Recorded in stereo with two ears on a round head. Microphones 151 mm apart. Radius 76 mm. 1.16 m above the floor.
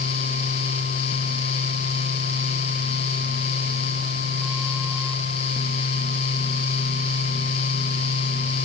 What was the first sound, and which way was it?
Only background noise.